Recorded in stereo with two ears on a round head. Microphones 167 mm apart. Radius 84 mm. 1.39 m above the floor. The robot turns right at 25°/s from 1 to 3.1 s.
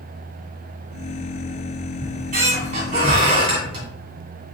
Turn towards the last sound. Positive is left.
turn(degrees=-30)  # may be behind; listen again after turning